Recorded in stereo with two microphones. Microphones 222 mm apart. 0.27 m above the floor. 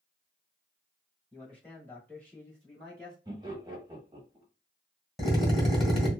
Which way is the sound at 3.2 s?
20° right (ahead or behind).